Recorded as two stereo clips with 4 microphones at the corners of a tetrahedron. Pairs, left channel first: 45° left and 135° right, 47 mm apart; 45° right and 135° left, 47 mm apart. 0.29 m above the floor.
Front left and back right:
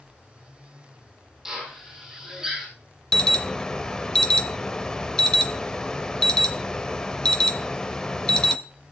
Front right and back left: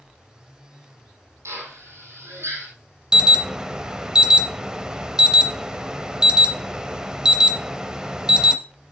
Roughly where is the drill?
Behind left.